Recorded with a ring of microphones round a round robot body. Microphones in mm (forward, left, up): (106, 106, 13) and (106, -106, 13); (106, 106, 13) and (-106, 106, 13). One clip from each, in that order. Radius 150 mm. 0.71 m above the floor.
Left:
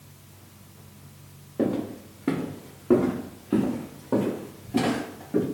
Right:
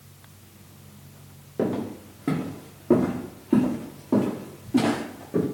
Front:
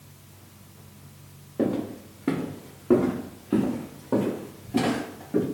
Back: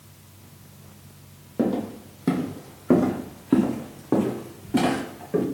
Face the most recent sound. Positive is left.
turn(degrees=150)